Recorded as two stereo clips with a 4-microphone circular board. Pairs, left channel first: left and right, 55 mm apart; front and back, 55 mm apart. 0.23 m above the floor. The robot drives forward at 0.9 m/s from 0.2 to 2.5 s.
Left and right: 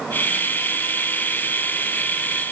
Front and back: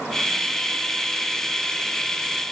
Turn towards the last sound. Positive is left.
No sound to turn to.